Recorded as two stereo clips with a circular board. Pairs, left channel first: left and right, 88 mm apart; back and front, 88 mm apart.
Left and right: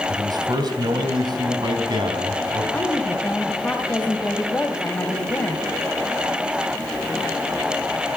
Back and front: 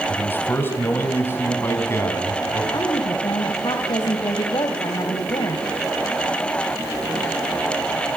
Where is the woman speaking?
160° left, 2.5 m.